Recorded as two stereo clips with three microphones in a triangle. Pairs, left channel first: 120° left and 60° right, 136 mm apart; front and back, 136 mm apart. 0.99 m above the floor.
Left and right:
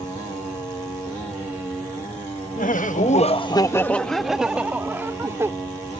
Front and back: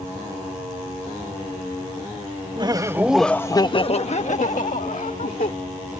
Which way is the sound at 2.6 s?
125° left.